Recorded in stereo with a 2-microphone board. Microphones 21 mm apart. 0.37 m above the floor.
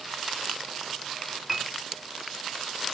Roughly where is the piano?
Centre.